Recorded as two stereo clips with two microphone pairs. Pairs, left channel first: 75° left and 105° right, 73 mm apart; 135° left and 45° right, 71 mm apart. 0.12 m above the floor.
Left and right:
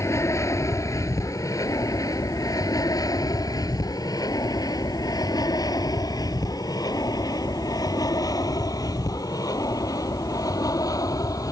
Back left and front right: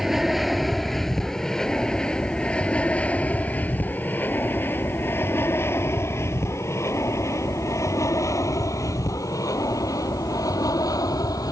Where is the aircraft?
40° left; by 11.5 s 110° left.